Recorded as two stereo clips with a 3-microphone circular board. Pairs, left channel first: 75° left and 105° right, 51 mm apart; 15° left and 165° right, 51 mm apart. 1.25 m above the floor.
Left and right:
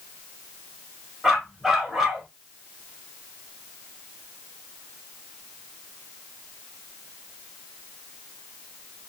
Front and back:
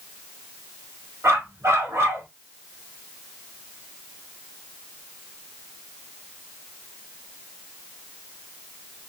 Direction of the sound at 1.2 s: 170° left.